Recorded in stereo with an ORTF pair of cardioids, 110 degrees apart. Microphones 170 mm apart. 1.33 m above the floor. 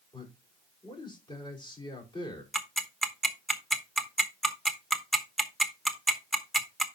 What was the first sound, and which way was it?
A man speaking, 30° left.